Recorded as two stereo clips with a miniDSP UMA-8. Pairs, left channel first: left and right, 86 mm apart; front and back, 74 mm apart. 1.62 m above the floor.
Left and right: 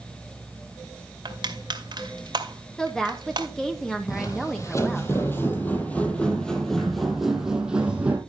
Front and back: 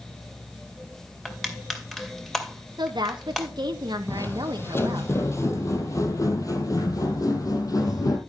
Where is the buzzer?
No buzzer in this recording.